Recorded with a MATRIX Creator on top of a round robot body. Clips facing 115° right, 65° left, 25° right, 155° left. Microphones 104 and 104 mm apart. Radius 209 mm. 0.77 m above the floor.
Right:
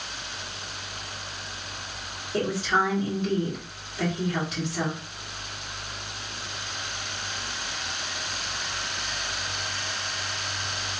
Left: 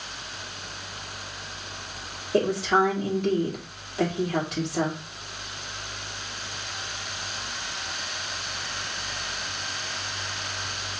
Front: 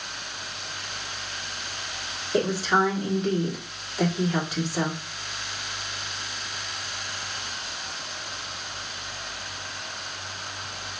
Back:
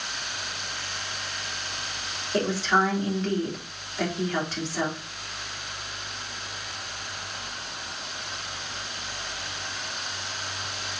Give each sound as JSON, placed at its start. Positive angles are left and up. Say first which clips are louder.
{"t": 2.3, "sound": "a woman speaking", "louder": "left 3 dB, front 1 dB", "azimuth_deg": 55, "distance_m": 2.0}